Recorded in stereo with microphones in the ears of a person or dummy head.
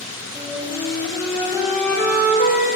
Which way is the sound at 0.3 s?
5° right (ahead or behind).